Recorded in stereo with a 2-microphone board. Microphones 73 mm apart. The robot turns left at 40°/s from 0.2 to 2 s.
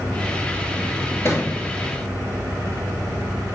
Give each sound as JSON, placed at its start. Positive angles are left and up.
{"t": 1.2, "sound": "a thud", "side_deg": 35, "distance_m": 2.0}